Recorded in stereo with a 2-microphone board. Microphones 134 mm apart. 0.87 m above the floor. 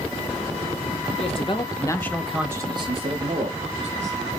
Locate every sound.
1.2 s a man speaking: 50° left (ahead or behind), 1.4 m; by 4.1 s 70° right (ahead or behind), 1.8 m